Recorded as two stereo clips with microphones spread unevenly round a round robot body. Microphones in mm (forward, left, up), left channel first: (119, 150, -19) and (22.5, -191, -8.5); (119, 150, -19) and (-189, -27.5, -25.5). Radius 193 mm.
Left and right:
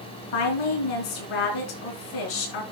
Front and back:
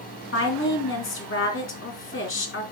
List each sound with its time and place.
0.3 s a woman speaking: 85° left, 3.5 m